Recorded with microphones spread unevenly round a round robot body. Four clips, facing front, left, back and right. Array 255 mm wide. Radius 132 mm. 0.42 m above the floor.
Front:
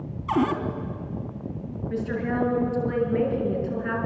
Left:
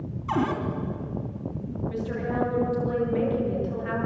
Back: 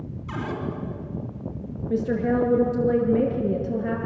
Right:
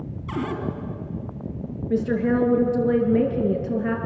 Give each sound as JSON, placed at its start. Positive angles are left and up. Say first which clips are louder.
{"t": 0.3, "sound": "a cupboard door", "louder": "left 3 dB, front 9 dB", "azimuth_deg": 30, "distance_m": 3.0}
{"t": 1.9, "sound": "a woman speaking", "louder": "right 10 dB, back 5 dB", "azimuth_deg": -130, "distance_m": 6.0}